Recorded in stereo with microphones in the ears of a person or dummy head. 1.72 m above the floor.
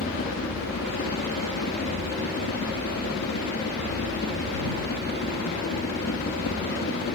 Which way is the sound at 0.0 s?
55° left (ahead or behind).